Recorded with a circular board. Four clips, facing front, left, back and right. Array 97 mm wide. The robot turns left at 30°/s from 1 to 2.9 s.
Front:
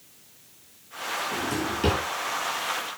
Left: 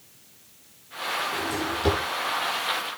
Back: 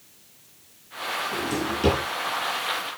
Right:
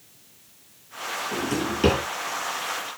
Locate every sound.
1.3 s a drawer: 70° right, 10 m; by 2.0 s 95° right, 10 m